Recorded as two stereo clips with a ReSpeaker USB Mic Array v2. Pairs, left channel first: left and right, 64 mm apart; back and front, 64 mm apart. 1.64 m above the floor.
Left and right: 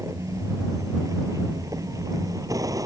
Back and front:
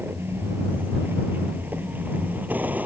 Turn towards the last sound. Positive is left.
turn(degrees=-65)